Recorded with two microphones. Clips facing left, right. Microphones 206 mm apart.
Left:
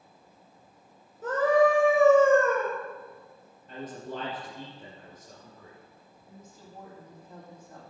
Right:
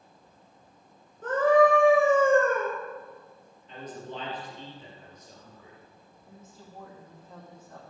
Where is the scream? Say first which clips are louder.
Right 2 dB; 5° left (ahead or behind), 2.0 m.